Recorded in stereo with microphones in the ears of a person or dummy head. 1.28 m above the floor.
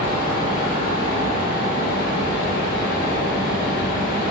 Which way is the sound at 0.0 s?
50° left (ahead or behind).